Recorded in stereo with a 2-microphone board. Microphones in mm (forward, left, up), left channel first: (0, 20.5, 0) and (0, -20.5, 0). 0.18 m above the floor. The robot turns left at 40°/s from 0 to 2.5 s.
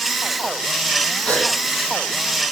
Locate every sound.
1.2 s a gasp: 35° left (ahead or behind), 7.5 m; by 1.5 s 45° left (ahead or behind), 7.5 m